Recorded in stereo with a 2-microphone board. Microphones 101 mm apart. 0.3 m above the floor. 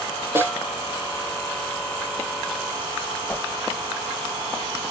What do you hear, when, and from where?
0.3 s a snare drum: 25° right (ahead or behind), 2.5 m
3.3 s a whoosh: 15° left (ahead or behind), 0.7 m